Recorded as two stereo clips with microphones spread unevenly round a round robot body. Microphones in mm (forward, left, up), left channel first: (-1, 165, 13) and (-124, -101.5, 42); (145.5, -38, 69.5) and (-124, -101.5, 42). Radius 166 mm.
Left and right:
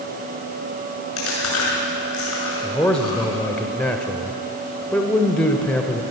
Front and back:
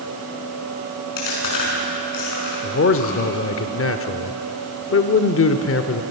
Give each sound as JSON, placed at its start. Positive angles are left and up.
{"t": 1.2, "sound": "chewing", "azimuth_deg": 15, "distance_m": 6.5}
{"t": 2.6, "sound": "a man speaking", "azimuth_deg": -15, "distance_m": 1.2}